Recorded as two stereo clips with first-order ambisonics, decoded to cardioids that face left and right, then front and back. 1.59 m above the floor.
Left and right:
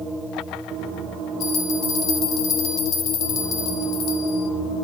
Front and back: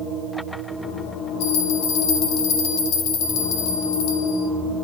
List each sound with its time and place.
1.4 s a bell: 40° left, 2.5 m